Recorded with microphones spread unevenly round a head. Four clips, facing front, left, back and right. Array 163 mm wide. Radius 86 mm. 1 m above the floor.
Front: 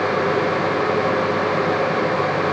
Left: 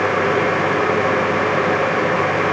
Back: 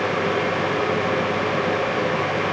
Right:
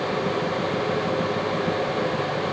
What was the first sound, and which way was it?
Only background noise.